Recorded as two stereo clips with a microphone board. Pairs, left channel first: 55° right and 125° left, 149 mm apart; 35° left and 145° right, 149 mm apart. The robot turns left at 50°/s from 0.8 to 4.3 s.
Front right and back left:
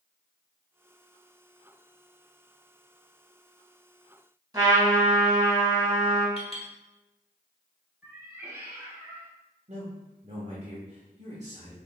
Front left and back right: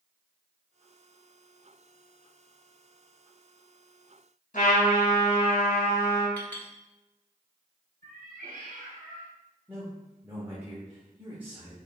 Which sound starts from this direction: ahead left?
A trumpet, at 4.5 s.